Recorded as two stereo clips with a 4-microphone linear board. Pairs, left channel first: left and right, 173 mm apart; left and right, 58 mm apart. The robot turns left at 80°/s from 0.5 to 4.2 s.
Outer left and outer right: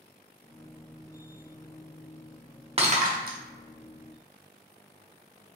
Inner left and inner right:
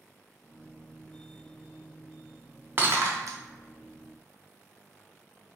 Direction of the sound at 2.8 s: 35° right (ahead or behind).